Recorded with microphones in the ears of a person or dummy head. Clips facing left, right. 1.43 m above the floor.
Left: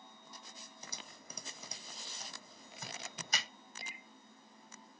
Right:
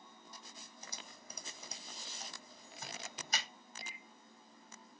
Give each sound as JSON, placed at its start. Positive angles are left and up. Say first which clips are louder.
{"t": 0.8, "sound": "typing on a keyboard", "louder": "left 1 dB", "side_deg": 70, "distance_m": 0.9}
{"t": 3.8, "sound": "a microwave", "louder": "left 1 dB", "side_deg": 20, "distance_m": 2.5}